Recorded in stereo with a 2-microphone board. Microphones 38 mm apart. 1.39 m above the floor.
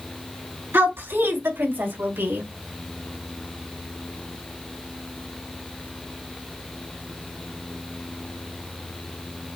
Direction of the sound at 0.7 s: 85° right.